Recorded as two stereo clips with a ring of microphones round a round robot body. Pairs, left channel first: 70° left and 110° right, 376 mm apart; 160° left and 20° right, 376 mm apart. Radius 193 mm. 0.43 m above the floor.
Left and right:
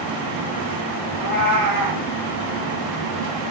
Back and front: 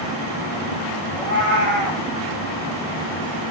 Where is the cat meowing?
65° right, 4.5 m.